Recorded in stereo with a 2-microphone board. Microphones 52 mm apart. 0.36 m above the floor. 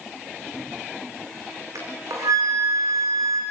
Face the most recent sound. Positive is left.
turn(degrees=-90)